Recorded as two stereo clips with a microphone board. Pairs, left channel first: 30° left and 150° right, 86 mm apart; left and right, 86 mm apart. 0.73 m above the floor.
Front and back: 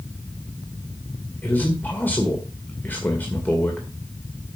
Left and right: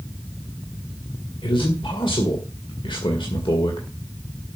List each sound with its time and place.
1.4 s a man speaking: 100° left, 2 m